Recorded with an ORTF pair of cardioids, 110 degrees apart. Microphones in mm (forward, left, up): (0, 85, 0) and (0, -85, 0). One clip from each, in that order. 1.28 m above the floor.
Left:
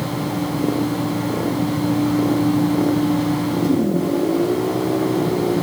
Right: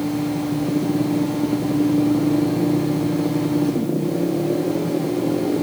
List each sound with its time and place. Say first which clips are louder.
0.0 s a fan: even; 55° left, 7 m